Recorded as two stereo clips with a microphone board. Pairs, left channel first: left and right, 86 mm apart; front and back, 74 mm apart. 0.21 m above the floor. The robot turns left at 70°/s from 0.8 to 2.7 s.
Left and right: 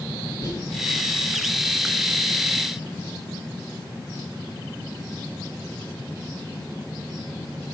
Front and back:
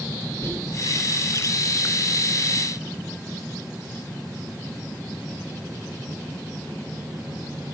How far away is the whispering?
About 2.5 m.